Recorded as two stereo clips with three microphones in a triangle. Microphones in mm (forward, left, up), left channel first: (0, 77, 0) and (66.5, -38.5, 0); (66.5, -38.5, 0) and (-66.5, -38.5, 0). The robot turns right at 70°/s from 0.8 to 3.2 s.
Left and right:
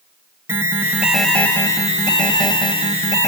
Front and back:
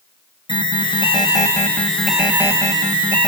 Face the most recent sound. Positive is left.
turn(degrees=170)